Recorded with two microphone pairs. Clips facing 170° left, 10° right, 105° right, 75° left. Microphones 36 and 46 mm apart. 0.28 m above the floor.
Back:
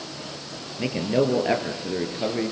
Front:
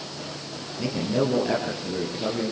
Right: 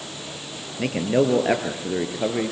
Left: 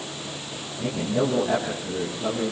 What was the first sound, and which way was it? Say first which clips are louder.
A man speaking: back 2 dB, right 4 dB; 125° right.